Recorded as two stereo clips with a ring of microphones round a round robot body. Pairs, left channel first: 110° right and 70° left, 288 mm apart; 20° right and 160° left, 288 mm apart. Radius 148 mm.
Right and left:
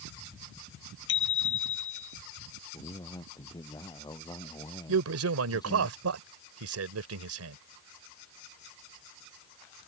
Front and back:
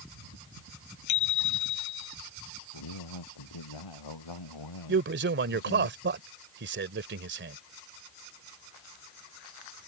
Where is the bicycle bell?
60° right.